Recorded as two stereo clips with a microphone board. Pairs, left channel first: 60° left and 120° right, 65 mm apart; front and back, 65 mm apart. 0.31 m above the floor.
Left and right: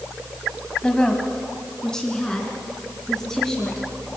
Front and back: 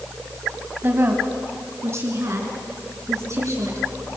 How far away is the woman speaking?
About 1.6 m.